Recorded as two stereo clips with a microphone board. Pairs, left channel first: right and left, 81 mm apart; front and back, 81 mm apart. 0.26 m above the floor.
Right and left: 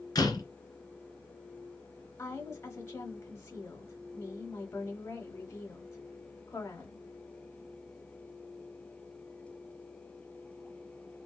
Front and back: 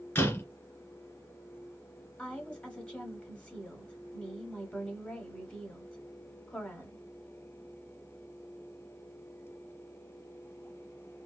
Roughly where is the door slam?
Ahead right.